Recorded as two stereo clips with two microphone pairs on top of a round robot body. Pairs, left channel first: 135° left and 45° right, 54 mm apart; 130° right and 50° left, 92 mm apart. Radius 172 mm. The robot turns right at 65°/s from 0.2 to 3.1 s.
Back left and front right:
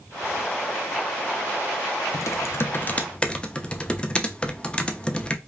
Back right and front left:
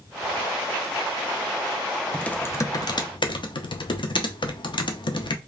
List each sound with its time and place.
2.1 s typing on a keyboard: 145° left, 0.7 m; by 5.4 s 155° right, 0.7 m